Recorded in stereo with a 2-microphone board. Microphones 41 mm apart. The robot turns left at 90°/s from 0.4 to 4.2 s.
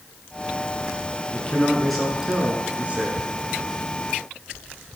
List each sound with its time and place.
1.3 s a man speaking: 60° left, 1.5 m; by 3.2 s 110° right, 1.5 m